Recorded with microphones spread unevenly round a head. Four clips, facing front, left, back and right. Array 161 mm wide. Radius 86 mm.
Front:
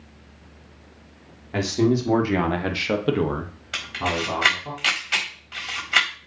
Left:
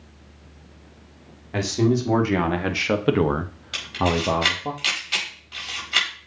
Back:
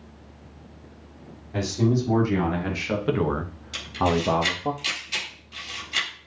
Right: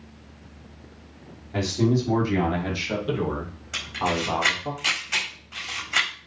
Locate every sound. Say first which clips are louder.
1.5 s a man speaking: left 2 dB, front 3 dB; 30° left, 3 m; by 4.7 s 160° left, 1.5 m
3.7 s a camera shutter: left 3 dB, back 3 dB; 5° left, 4.5 m